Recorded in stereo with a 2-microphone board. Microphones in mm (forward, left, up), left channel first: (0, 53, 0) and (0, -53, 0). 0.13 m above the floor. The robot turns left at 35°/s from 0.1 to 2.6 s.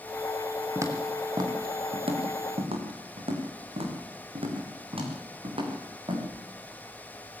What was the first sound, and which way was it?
Footsteps, 25° right (ahead or behind).